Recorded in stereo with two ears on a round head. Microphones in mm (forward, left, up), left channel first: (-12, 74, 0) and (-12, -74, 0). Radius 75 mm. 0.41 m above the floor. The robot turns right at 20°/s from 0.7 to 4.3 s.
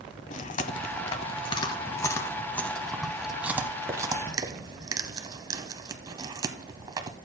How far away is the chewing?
About 0.9 m.